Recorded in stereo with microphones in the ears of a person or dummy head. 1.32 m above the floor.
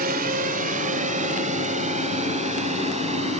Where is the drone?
50° right (ahead or behind); by 3.4 s 40° right (ahead or behind).